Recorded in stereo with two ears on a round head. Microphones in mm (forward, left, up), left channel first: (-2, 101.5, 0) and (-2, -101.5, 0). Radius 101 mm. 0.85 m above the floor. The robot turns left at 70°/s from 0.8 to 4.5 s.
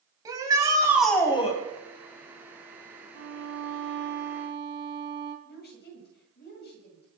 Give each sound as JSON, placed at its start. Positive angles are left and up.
{"t": 0.2, "sound": "a shout", "azimuth_deg": -165, "distance_m": 4.5}
{"t": 3.1, "sound": "a violin", "azimuth_deg": -60, "distance_m": 2.5}
{"t": 5.5, "sound": "a woman speaking", "side_deg": 50, "distance_m": 6.0}